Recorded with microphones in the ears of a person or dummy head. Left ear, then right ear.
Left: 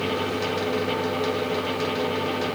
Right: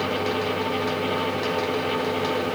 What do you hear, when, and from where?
Only background noise.